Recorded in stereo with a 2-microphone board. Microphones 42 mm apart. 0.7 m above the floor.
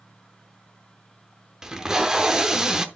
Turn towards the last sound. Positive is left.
turn(degrees=-15)  # may be behind; listen again after turning